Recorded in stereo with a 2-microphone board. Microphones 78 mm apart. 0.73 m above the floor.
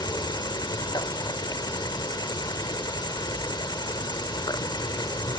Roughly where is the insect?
Left.